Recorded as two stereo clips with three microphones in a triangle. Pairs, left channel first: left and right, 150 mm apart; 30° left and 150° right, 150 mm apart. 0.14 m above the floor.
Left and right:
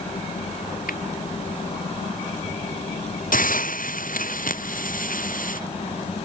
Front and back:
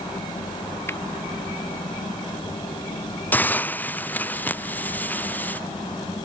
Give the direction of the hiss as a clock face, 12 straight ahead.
8 o'clock.